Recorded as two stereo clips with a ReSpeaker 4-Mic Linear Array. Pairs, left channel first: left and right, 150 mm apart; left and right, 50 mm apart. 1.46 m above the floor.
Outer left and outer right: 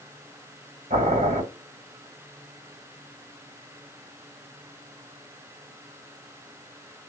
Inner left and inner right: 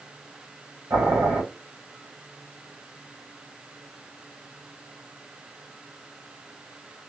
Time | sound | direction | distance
0.9 | boiling | 60° right (ahead or behind) | 1.6 m